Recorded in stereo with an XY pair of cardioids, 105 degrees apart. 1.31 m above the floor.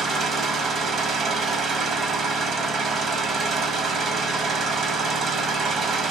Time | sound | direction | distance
0.0 | an engine running | 60° right | 1.2 m